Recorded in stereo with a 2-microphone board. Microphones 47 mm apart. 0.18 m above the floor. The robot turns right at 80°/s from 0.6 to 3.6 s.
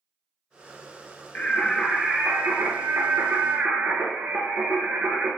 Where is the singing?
140° left, 0.8 m; by 5.3 s 40° right, 0.8 m.